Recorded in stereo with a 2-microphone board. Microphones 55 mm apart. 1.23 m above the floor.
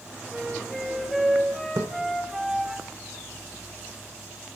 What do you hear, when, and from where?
0.3 s a flute: 5° right (ahead or behind), 5 m
1.8 s a splash: 70° right (ahead or behind), 2.0 m